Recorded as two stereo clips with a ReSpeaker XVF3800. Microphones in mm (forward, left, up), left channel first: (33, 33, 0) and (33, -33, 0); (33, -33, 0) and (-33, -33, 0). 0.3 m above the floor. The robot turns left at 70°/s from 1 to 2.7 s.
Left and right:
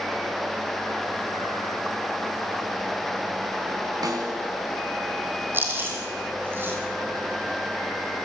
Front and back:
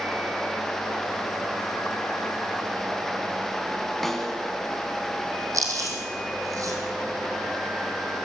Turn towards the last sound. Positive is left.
turn(degrees=-150)